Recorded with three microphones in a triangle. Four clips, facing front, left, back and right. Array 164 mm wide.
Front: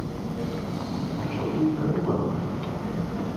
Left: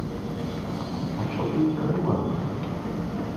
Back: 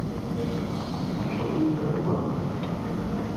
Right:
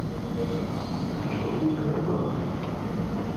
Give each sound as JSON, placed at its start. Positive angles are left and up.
{"t": 1.2, "sound": "a man speaking", "azimuth_deg": 85, "distance_m": 5.5}